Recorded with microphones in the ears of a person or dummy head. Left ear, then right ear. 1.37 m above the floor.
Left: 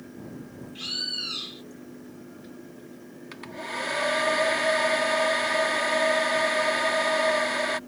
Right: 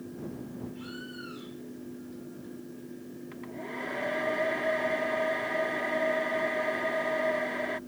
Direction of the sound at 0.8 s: 85° left.